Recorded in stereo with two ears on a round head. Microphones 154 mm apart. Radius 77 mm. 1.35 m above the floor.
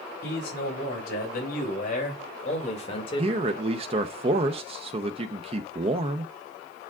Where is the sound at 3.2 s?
35° right (ahead or behind), 0.7 m.